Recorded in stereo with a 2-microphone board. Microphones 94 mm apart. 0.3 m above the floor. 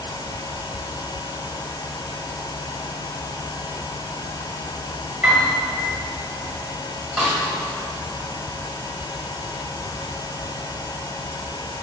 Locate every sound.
5.2 s a piano: 5° right (ahead or behind), 1.4 m
7.2 s a snare drum: 5° right (ahead or behind), 1.7 m